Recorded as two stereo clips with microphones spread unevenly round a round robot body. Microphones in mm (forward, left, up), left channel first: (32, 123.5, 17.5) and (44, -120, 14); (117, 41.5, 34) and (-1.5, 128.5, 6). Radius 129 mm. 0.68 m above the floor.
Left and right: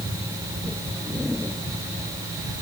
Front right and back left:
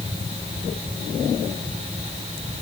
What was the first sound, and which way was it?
Only background noise.